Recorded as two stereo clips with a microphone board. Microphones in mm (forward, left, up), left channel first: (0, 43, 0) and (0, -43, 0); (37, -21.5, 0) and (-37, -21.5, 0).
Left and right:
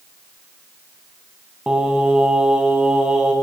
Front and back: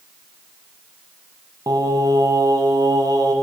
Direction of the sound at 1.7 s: 170° right.